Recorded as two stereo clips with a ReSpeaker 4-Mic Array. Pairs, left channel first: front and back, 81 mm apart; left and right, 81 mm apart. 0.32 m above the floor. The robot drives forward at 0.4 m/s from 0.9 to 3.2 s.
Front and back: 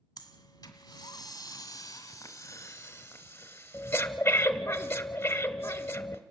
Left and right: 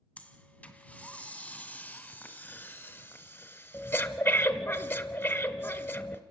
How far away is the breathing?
About 1.7 m.